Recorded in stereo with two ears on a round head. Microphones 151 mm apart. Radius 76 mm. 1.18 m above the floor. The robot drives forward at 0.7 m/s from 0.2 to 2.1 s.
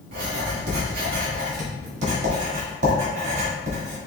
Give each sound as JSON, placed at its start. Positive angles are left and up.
{"t": 0.1, "sound": "writing", "side_deg": -85, "distance_m": 1.4}